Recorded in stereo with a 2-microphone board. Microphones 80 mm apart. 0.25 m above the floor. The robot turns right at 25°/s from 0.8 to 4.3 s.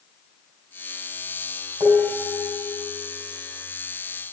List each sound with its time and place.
1.8 s dishes clattering: 85° right, 5.5 m; by 2.7 s 65° right (ahead or behind), 5.5 m